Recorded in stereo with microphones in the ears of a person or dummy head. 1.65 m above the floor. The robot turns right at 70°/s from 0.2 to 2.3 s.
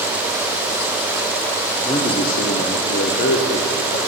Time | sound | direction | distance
1.8 | a man speaking | 25° left | 0.8 m